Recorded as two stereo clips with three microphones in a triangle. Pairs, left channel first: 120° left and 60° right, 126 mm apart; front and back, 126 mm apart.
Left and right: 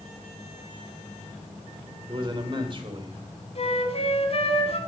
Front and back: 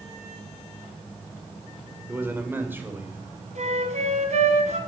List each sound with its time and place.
2.1 s a man speaking: 105° right, 2 m
3.5 s a flute: 160° left, 2.5 m